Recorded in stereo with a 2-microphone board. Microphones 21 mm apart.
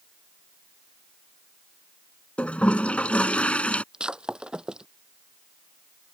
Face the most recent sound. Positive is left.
turn(degrees=-35)  # may be behind; listen again after turning